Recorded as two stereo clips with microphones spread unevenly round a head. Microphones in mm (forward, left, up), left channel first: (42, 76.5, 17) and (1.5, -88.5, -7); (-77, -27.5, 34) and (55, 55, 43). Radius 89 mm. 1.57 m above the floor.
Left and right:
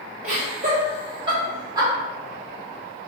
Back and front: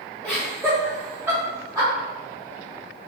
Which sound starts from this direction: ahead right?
Laughter, at 0.2 s.